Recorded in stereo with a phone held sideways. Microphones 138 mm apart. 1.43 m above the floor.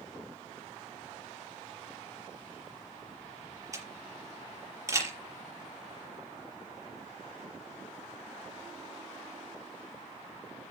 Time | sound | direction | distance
3.7 | a camera shutter | 25° right (ahead or behind) | 5.5 m